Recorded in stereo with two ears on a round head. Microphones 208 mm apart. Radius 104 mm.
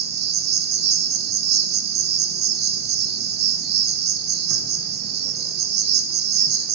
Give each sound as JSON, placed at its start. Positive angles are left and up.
{"t": 0.0, "sound": "an insect", "side_deg": -45, "distance_m": 1.0}